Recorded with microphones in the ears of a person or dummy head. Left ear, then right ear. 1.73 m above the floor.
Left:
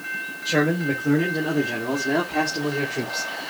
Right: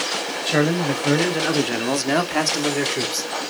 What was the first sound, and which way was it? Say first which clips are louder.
A man speaking: right 1 dB; 20° right (ahead or behind).